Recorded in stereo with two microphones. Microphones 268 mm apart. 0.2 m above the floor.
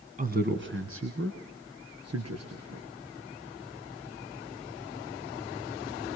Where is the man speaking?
30° right (ahead or behind), 1.6 m; by 2.9 s 70° right (ahead or behind), 4 m.